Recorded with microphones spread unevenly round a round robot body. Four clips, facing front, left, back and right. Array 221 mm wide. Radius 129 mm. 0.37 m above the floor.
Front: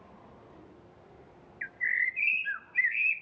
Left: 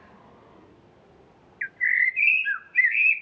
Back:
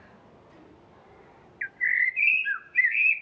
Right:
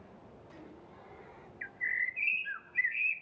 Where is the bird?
110° left, 0.6 m.